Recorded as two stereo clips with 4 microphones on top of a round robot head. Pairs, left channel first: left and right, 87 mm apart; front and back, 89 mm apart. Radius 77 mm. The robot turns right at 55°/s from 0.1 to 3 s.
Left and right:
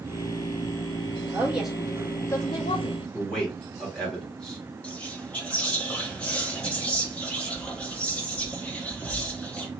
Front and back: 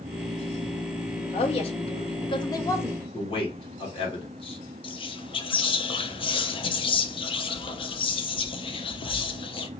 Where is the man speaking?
5° left, 1.2 m.